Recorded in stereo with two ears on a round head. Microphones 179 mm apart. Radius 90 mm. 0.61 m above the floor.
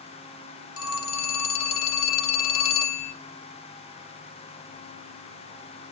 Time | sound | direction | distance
0.8 | a phone ringing | 70° left (ahead or behind) | 1.4 m